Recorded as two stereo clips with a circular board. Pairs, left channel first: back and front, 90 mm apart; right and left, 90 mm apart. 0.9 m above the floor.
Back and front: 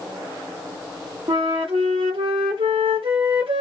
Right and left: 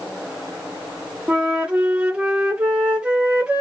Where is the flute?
10° left, 1.0 m.